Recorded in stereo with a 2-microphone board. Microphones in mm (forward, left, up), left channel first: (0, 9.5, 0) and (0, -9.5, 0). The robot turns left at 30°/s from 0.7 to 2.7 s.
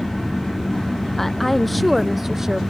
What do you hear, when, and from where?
1.2 s a woman speaking: 20° left; by 2.6 s 20° right